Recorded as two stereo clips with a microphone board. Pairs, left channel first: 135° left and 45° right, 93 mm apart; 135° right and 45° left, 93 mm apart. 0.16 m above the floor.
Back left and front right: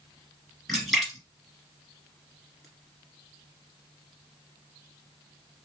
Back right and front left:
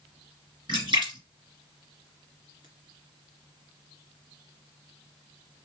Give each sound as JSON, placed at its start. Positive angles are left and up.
{"t": 0.7, "sound": "a splash", "azimuth_deg": 50, "distance_m": 2.0}